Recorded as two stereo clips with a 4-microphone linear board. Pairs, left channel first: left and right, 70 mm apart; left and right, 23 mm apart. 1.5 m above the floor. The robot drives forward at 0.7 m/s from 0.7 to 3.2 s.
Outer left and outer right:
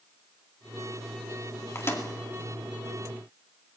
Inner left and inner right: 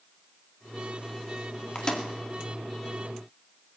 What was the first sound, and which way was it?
A microwave, 35° left (ahead or behind).